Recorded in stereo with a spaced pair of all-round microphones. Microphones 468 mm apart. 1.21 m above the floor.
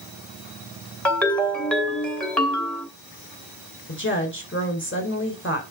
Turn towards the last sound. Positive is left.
turn(degrees=25)  # may be behind; listen again after turning